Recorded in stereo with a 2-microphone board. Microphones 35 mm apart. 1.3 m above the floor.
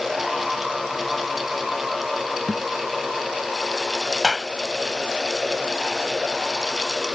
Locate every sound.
2.5 s a thud: 15° left (ahead or behind)
4.2 s a clap: 5° right (ahead or behind)